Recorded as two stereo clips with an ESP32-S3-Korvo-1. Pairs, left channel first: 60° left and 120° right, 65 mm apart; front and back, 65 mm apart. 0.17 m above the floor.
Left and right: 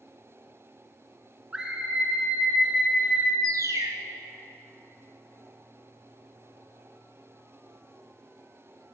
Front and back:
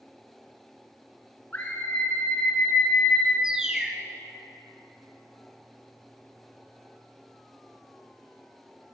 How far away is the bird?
About 0.7 m.